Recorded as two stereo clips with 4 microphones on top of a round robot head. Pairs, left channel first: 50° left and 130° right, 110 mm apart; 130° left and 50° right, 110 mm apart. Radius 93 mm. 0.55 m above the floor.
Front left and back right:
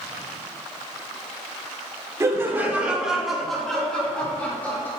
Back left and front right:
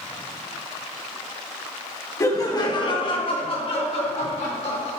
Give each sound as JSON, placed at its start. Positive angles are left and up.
{"t": 2.2, "sound": "laughter", "azimuth_deg": 175, "distance_m": 1.4}